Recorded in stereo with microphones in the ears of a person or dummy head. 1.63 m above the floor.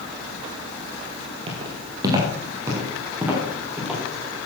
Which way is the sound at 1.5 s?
30° right (ahead or behind).